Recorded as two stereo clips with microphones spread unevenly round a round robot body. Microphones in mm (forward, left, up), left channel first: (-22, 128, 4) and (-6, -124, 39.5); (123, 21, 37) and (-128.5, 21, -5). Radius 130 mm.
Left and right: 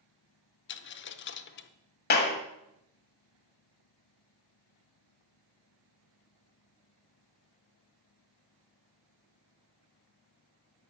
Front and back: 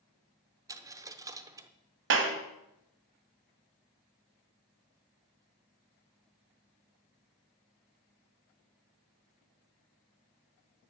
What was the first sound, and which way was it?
A dropped coin, 95° left.